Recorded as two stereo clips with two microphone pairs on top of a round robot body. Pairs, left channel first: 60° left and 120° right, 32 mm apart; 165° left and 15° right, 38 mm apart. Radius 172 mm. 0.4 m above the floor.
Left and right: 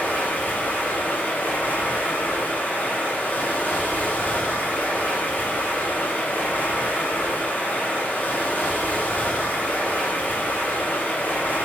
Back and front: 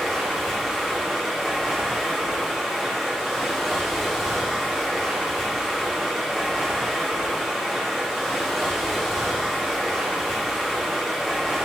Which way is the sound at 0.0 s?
60° left.